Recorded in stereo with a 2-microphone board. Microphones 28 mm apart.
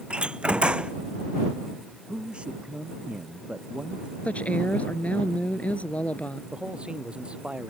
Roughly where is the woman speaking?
Left.